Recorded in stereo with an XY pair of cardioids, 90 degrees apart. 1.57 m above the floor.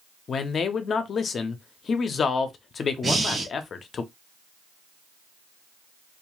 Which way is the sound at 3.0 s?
35° right.